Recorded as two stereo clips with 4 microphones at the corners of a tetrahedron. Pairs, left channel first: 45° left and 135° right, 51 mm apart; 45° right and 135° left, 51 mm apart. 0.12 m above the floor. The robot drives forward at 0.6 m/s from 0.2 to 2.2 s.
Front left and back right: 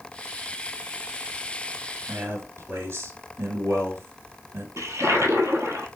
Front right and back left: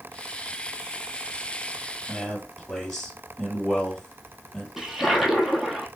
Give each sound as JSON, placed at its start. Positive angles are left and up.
{"t": 2.1, "sound": "a man speaking", "azimuth_deg": -125, "distance_m": 1.7}
{"t": 4.8, "sound": "a toilet flushing", "azimuth_deg": -140, "distance_m": 1.0}